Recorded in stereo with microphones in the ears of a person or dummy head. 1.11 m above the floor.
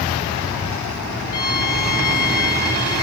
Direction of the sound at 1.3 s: 25° left (ahead or behind).